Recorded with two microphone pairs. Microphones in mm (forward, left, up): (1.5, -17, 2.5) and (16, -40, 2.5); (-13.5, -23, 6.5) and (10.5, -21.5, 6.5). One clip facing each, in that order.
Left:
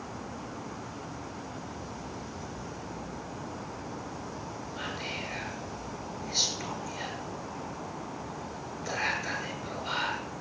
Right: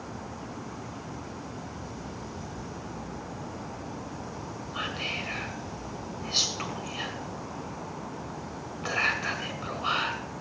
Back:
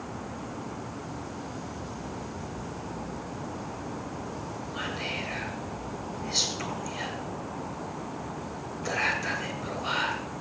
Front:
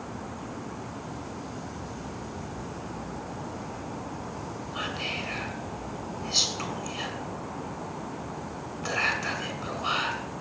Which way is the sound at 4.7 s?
65° right.